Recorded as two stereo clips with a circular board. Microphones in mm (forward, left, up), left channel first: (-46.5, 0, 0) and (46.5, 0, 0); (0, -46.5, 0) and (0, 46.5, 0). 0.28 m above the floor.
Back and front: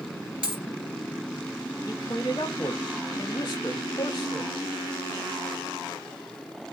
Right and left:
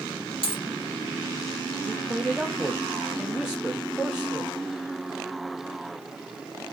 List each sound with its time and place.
0.4 s a dropped coin: 80° right, 2.5 m
1.9 s a man speaking: 170° left, 1.0 m